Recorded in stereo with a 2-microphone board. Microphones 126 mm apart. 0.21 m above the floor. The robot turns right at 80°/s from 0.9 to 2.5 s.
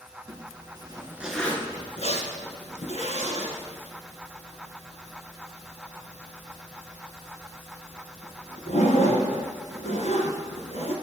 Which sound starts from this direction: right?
A zipper, at 0.3 s.